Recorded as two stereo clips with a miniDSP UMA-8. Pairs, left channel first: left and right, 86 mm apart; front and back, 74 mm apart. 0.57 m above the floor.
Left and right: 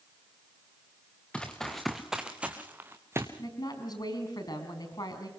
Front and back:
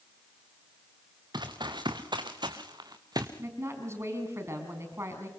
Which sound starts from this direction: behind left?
A woman speaking, at 3.4 s.